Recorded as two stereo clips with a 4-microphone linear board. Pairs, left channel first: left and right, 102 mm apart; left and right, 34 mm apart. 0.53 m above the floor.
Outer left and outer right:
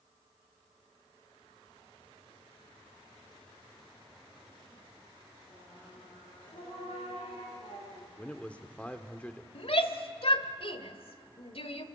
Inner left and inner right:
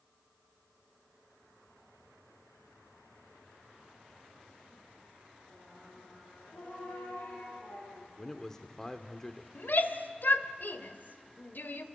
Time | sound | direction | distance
5.5 | singing | 85° left | 8.5 m
8.2 | a man speaking | 15° left (ahead or behind) | 1.4 m
9.6 | a shout | 65° left (ahead or behind) | 1.8 m